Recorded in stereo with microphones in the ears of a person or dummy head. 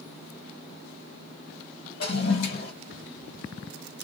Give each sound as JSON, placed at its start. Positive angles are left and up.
{"t": 2.0, "sound": "a toilet flushing", "side_deg": 60, "distance_m": 1.5}